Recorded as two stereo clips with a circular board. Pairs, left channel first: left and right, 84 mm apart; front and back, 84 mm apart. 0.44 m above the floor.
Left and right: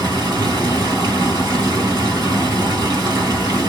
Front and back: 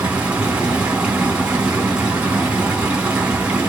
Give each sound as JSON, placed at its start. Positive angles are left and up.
{"t": 0.0, "sound": "running water", "azimuth_deg": -110, "distance_m": 1.6}